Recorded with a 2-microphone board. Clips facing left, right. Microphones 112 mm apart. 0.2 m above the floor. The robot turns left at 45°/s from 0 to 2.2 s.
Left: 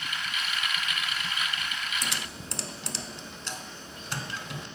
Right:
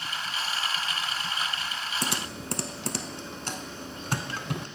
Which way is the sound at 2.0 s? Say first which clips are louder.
Right 4 dB; 65° right (ahead or behind).